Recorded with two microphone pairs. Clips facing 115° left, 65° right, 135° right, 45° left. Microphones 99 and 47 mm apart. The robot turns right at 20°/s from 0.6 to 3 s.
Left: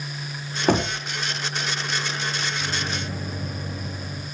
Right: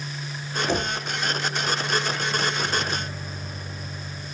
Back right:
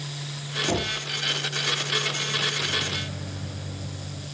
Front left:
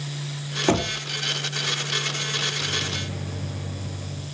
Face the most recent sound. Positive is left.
turn(degrees=105)